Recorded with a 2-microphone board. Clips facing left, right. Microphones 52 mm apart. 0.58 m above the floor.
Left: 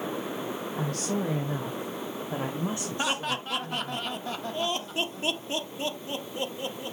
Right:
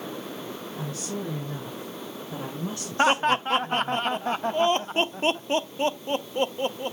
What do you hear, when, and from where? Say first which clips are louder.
0.8 s a woman speaking: left 3 dB; 70° left (ahead or behind), 2.5 m; by 4.0 s centre (ahead or behind), 3 m
3.0 s laughter: right 11 dB; 45° right (ahead or behind), 0.9 m